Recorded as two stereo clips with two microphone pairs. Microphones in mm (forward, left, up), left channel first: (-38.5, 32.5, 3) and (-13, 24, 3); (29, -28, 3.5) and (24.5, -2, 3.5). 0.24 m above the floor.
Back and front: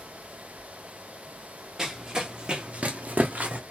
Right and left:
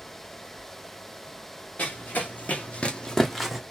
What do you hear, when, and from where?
1.8 s running footsteps: 90° right, 1.2 m; by 3.6 s 10° left, 0.8 m